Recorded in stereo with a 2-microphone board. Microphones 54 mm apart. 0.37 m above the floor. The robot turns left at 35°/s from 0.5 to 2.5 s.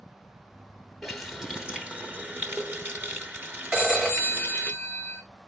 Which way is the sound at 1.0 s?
10° left.